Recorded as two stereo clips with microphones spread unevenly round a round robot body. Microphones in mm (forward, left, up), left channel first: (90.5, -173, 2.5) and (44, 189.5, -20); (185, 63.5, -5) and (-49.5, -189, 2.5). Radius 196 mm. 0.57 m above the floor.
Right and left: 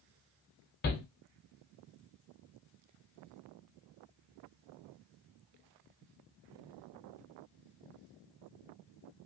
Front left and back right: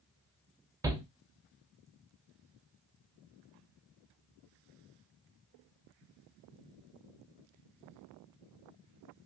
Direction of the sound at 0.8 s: 60° right.